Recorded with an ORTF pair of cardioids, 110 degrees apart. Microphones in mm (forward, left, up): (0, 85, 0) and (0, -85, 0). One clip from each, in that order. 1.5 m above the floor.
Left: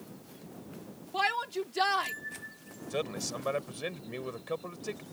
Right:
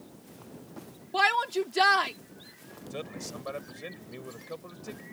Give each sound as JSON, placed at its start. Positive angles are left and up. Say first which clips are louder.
{"t": 1.1, "sound": "a shout", "louder": "right 5 dB", "azimuth_deg": -40}
{"t": 2.9, "sound": "a man speaking", "louder": "left 5 dB", "azimuth_deg": 30}